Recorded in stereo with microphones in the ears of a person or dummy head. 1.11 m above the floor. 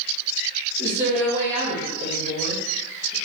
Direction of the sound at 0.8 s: 40° left (ahead or behind).